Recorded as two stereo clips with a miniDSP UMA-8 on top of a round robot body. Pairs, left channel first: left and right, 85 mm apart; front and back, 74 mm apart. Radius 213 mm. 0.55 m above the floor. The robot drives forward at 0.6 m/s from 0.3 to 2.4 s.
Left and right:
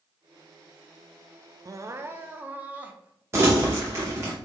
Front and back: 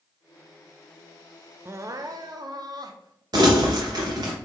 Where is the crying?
130° right, 0.5 m; by 3.2 s 160° right, 0.8 m.